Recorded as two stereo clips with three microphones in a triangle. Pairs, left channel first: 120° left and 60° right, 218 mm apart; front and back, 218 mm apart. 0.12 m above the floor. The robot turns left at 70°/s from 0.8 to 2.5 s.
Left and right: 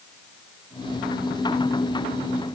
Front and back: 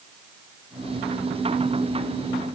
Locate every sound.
Only background noise.